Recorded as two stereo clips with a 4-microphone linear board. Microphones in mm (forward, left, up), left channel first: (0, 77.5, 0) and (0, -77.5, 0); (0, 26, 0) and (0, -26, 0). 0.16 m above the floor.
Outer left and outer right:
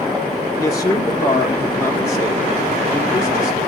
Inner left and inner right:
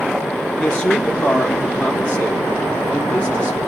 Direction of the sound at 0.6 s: 20° left (ahead or behind).